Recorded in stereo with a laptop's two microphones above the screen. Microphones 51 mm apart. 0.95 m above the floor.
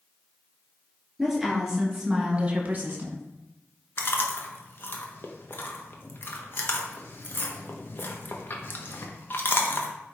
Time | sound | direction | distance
1.2 | a woman speaking | centre (ahead or behind) | 2.5 m
4.0 | chewing | 45° left (ahead or behind) | 1.0 m